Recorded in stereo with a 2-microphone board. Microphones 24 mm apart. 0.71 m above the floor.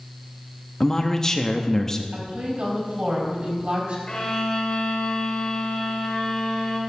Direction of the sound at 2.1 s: 45° right (ahead or behind).